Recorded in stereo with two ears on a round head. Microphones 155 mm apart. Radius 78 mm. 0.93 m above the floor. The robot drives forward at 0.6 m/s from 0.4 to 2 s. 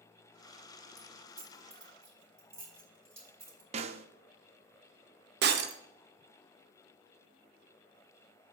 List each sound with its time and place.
1.0 s keys jangling: 15° right (ahead or behind), 3.5 m
3.7 s a snare drum: 35° right (ahead or behind), 0.6 m
5.4 s breaking glass: 60° right (ahead or behind), 0.8 m